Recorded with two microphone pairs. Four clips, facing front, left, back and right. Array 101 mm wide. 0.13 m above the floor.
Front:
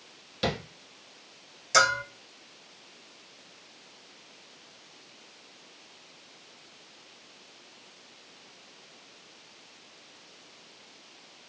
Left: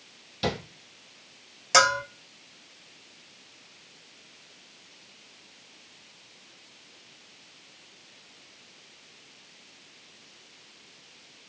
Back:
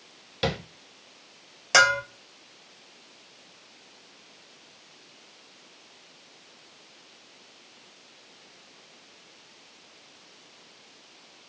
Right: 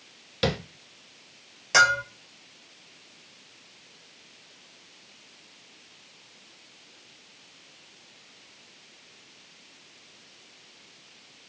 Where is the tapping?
110° right, 1.1 m.